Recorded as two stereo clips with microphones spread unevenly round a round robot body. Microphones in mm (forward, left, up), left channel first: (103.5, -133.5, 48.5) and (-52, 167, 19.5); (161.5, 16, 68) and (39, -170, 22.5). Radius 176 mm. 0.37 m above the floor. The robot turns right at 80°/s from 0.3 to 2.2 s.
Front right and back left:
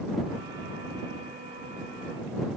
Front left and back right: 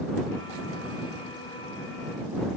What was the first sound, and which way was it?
Only background noise.